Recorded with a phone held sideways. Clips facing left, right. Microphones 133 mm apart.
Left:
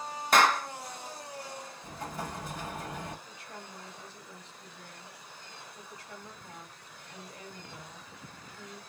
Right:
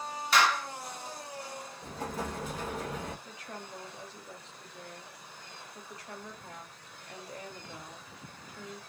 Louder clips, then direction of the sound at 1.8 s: Right 3 dB; 80° right.